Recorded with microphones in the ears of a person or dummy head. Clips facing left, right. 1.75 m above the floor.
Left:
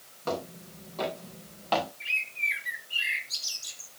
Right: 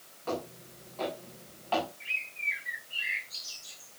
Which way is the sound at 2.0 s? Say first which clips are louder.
Left 3 dB; 75° left (ahead or behind).